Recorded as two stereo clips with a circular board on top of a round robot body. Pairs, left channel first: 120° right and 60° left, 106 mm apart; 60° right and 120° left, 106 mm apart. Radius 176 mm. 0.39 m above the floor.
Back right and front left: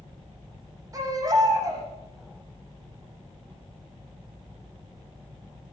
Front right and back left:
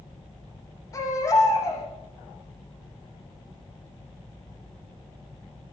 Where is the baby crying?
Straight ahead, 9 m.